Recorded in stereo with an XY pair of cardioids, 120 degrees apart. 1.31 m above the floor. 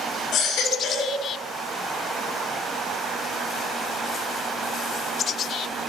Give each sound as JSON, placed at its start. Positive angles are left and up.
{"t": 0.3, "sound": "a baby crying", "azimuth_deg": 70, "distance_m": 6.5}